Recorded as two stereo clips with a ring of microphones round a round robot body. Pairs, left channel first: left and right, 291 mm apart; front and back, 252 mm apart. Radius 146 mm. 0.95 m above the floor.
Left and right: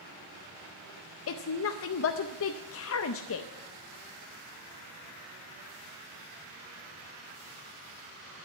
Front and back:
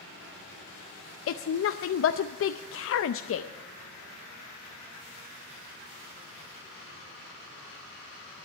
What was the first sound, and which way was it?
A woman speaking, 40° left.